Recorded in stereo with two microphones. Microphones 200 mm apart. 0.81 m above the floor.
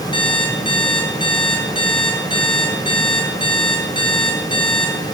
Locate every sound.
0.1 s an alarm clock: 25° left (ahead or behind), 7 m